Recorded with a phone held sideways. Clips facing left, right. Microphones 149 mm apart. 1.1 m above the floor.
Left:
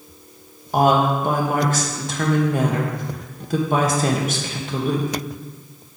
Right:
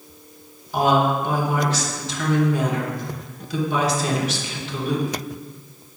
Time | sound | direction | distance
0.7 | a woman speaking | 50° left (ahead or behind) | 1.1 m